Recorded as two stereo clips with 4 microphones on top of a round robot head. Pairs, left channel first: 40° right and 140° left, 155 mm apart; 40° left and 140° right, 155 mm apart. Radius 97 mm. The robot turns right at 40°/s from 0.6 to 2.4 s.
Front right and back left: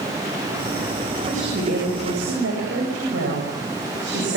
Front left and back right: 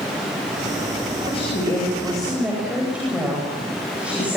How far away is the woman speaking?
About 8.5 m.